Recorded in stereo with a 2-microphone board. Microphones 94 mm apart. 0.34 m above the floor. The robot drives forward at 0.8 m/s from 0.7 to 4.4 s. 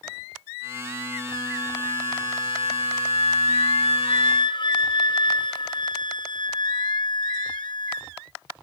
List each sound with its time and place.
1.3 s a flute: 35° left (ahead or behind), 2 m; by 8.1 s 55° left (ahead or behind), 1.5 m